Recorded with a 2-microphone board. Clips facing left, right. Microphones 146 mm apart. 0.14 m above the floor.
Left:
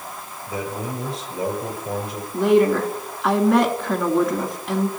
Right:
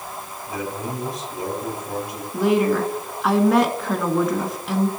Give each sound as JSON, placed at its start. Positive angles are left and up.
{"t": 0.5, "sound": "a man speaking", "side_deg": 30, "distance_m": 4.0}
{"t": 2.3, "sound": "a woman speaking", "side_deg": 0, "distance_m": 1.5}